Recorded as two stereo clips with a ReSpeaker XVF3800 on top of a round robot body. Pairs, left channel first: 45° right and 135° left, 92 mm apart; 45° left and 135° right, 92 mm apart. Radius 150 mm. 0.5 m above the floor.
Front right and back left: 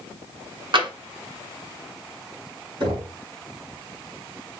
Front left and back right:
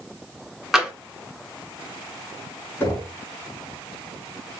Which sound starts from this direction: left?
Knocking, at 2.8 s.